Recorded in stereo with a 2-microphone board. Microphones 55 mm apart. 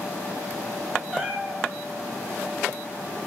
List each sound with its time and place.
1.1 s a cat meowing: 10° right (ahead or behind), 0.9 m